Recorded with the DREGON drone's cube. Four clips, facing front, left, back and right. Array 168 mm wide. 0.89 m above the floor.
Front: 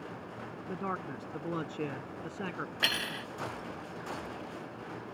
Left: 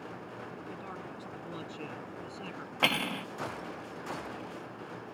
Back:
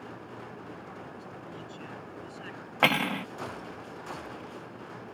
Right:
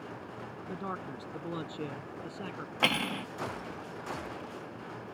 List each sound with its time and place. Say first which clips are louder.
0.7 s a man speaking: right 4 dB, front 6 dB; 30° right; by 2.7 s 10° right
2.8 s cutlery clinking: even, back 13 dB; straight behind